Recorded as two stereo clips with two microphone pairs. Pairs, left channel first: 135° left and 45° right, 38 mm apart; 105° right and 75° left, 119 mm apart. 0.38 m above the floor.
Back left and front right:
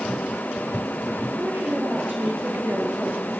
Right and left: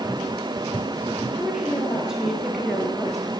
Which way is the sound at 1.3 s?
5° right.